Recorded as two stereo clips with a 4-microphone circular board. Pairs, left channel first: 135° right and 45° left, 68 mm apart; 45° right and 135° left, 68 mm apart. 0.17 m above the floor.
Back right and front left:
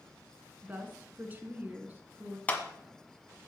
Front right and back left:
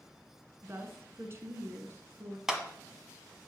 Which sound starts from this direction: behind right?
A clap, at 2.5 s.